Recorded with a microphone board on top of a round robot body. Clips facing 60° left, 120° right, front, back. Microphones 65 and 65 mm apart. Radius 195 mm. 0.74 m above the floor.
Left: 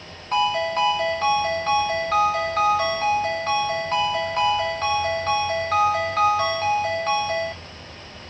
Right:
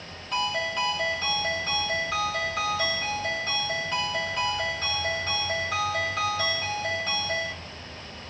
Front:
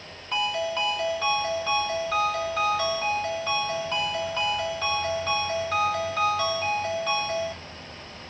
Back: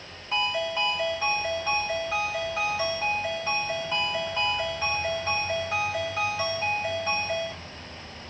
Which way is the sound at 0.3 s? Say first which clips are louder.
Left 7 dB, front 1 dB; 100° left.